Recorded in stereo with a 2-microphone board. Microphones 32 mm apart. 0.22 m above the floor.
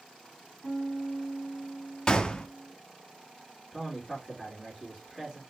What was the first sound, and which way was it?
A piano, 30° left (ahead or behind).